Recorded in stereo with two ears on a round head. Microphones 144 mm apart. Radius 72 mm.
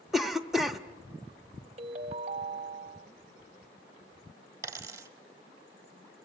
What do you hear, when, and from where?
0.1 s a cough: centre (ahead or behind), 0.7 m
1.8 s a ringtone: 40° right (ahead or behind), 0.7 m
4.6 s a dropped coin: 20° right (ahead or behind), 1.0 m